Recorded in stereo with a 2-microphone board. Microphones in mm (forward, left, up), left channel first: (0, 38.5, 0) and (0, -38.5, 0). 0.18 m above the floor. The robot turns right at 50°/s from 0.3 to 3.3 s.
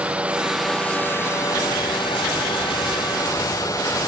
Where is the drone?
15° right; by 4.1 s 135° left.